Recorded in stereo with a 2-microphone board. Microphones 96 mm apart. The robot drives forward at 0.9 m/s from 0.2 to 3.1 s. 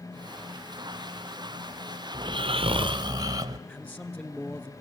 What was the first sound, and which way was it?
Snoring, 45° right (ahead or behind).